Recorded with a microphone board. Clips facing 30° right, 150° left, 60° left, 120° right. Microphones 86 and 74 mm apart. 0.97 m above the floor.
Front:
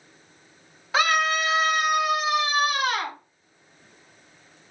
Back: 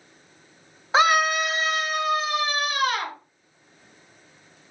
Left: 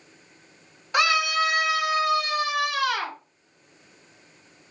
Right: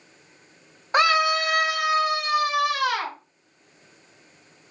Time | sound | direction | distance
0.9 | a scream | 155° right | 0.7 m